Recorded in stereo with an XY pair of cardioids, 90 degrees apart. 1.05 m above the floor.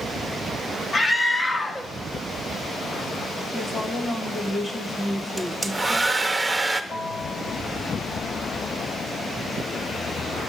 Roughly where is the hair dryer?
Ahead.